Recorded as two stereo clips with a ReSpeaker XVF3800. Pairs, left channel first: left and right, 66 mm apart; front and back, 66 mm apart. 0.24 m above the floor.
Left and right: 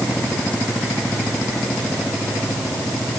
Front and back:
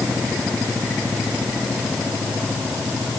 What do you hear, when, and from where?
Only background noise.